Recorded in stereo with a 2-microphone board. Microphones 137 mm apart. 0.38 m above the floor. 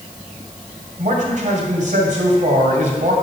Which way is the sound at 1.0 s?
60° right (ahead or behind).